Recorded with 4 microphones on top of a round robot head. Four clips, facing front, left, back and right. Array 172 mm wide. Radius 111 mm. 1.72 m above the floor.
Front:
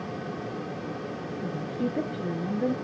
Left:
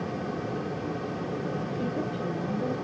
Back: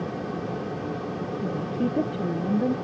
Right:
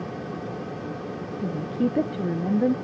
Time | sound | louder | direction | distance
1.4 | a woman speaking | right 5 dB, back 3 dB | 105° right | 0.8 m